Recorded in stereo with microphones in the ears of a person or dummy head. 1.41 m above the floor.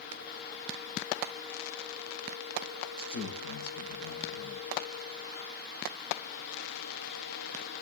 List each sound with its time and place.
3.0 s a man speaking: 70° left (ahead or behind), 5.5 m